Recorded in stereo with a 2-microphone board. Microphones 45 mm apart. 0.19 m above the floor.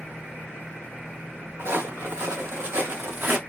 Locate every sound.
1.6 s footsteps: 80° right, 1.3 m; by 3.4 s 55° right (ahead or behind), 0.8 m